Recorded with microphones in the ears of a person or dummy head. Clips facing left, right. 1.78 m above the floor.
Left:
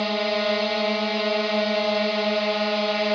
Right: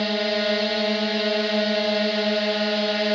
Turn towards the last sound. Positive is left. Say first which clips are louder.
# even
turn(degrees=-10)  # may be behind; listen again after turning